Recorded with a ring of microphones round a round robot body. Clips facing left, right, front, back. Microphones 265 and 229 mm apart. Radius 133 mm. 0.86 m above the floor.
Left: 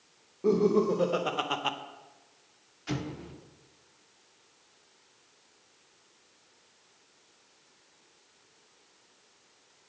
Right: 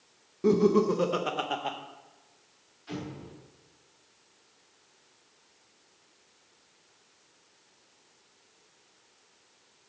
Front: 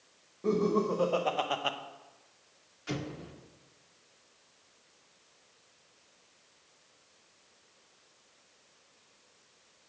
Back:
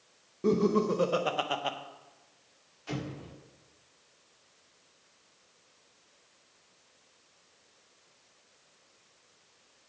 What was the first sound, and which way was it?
Laughter, 135° right.